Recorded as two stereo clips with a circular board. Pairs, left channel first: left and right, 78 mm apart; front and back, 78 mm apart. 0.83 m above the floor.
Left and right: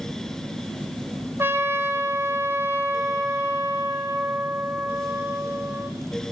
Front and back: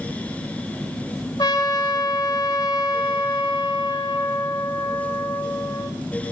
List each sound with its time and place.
1.4 s a trumpet: 35° right, 1.1 m